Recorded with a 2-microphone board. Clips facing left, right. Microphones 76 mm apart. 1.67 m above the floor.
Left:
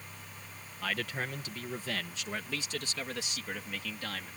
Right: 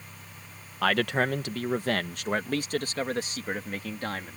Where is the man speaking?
75° right (ahead or behind); by 4.4 s 35° right (ahead or behind).